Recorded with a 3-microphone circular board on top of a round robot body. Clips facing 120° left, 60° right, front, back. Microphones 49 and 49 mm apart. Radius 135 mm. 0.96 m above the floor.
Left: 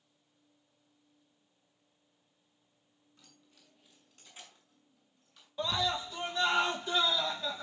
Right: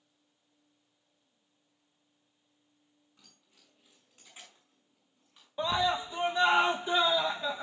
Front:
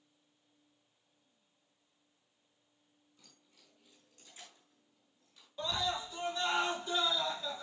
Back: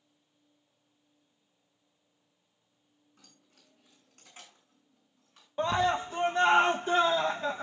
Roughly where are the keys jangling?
Behind right.